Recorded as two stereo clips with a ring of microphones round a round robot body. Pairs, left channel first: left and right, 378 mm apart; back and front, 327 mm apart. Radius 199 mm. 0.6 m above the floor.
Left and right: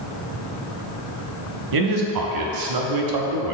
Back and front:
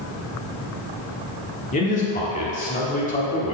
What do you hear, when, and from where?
1.7 s a man speaking: 115° right, 1.0 m